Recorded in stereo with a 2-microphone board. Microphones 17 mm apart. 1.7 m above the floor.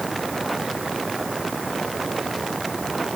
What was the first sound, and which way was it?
Only background noise.